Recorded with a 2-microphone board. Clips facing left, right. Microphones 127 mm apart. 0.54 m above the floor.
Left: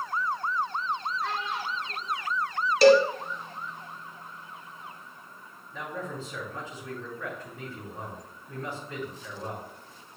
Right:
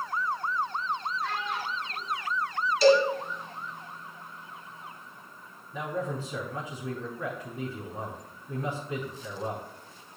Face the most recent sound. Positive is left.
turn(degrees=-20)  # may be behind; listen again after turning